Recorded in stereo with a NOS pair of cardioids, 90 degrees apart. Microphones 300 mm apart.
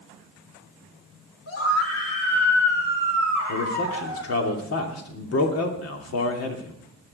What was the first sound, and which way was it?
A scream, 50° left.